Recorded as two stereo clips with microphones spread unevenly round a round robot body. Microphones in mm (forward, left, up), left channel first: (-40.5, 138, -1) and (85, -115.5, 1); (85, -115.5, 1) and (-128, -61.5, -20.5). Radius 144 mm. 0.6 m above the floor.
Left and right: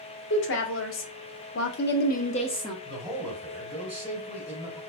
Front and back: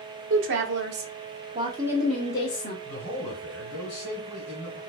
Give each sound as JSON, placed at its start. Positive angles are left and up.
{"t": 0.3, "sound": "a woman speaking", "azimuth_deg": 160, "distance_m": 1.1}
{"t": 2.9, "sound": "a man speaking", "azimuth_deg": 30, "distance_m": 1.8}